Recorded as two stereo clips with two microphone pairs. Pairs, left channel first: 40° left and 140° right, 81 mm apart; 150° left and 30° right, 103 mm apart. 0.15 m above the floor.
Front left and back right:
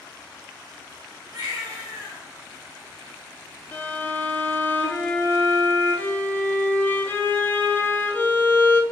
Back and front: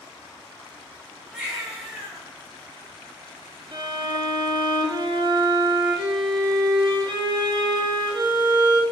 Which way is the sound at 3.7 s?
15° right.